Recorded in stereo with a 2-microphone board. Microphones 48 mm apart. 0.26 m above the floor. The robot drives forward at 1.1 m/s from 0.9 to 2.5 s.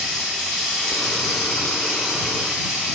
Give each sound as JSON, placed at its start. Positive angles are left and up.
{"t": 0.0, "sound": "running water", "side_deg": 15, "distance_m": 2.0}